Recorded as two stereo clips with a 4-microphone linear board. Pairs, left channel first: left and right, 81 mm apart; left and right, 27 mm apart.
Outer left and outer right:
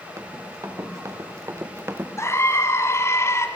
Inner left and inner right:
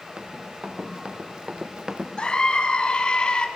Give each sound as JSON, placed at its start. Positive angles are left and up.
{"t": 0.2, "sound": "running footsteps", "side_deg": -40, "distance_m": 3.5}
{"t": 2.2, "sound": "a scream", "side_deg": 35, "distance_m": 2.0}